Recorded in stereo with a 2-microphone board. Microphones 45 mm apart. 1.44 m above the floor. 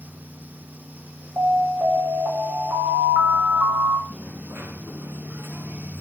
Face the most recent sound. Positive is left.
turn(degrees=-65)  # may be behind; listen again after turning